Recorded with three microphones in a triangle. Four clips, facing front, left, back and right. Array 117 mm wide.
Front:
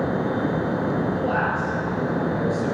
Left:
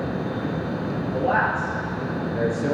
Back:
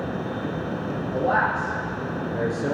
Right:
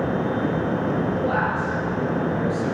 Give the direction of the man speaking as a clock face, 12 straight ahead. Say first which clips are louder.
Left 1 dB, back 1 dB; 7 o'clock.